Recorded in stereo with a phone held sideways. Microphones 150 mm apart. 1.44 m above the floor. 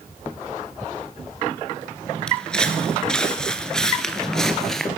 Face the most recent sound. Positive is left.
turn(degrees=5)  # may be behind; listen again after turning